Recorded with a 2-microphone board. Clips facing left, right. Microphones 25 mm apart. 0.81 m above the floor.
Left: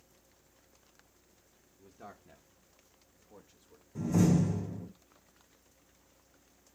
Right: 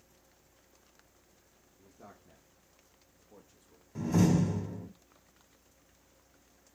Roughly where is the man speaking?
Left.